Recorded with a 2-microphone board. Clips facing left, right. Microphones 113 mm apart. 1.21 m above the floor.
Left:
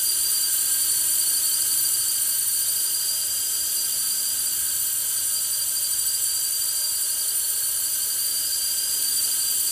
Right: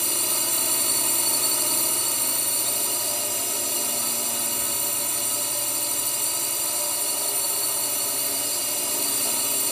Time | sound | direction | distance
0.0 | a drone | 70° right (ahead or behind) | ?